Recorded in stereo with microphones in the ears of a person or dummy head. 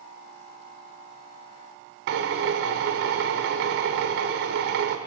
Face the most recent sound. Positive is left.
turn(degrees=-60)  # may be behind; listen again after turning